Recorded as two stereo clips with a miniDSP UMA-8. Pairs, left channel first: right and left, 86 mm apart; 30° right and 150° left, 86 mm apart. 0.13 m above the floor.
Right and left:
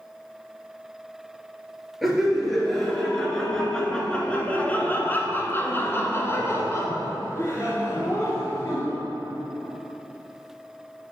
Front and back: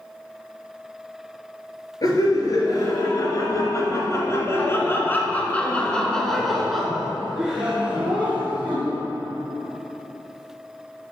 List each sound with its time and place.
2.0 s laughter: 5° left, 2 m; by 9.0 s 140° right, 2.5 m